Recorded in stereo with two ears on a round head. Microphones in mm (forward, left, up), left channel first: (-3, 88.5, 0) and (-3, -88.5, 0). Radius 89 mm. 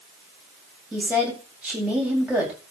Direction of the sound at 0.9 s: 5° right (ahead or behind).